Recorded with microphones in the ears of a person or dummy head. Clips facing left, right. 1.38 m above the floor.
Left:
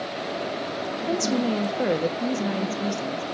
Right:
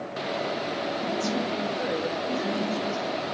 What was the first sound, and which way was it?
A woman speaking, 60° left (ahead or behind).